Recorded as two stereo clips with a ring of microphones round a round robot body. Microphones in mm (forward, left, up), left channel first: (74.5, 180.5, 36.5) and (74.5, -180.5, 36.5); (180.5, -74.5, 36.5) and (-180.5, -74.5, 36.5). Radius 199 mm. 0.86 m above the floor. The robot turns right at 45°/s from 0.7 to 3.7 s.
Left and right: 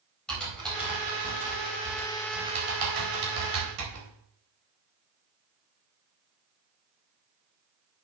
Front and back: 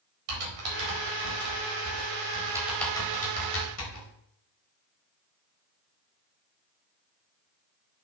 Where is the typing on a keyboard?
Straight behind, 4 m; by 4.1 s 45° right, 4 m.